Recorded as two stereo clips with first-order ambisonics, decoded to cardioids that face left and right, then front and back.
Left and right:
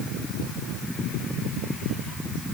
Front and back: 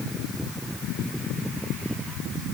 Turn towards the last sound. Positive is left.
No sound to turn to.